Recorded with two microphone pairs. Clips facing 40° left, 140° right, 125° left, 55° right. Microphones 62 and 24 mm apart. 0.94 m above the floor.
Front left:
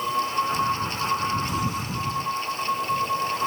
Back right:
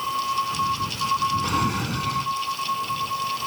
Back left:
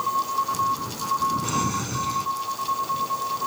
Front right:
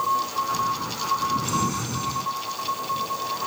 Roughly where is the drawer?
Behind right.